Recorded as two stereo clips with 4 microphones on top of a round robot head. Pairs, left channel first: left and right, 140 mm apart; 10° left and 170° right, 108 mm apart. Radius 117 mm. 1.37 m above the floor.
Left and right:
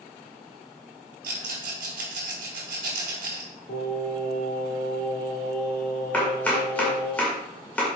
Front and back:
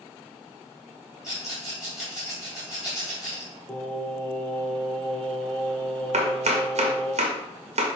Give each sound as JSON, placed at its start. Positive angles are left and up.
{"t": 1.2, "sound": "a rattle", "azimuth_deg": -85, "distance_m": 4.0}
{"t": 3.7, "sound": "singing", "azimuth_deg": 85, "distance_m": 2.0}
{"t": 6.1, "sound": "chopping", "azimuth_deg": 170, "distance_m": 2.0}